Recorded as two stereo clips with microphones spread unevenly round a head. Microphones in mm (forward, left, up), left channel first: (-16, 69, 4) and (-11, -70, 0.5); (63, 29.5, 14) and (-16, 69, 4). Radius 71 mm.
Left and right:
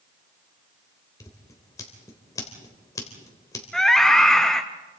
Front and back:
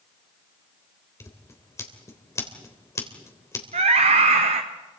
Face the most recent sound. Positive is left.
turn(degrees=180)